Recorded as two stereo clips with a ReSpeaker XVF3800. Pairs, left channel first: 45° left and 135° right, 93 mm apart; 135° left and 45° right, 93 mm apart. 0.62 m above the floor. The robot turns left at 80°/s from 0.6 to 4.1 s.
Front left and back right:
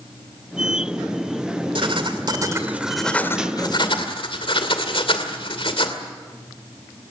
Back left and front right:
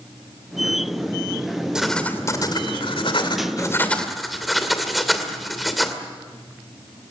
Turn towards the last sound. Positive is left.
turn(degrees=45)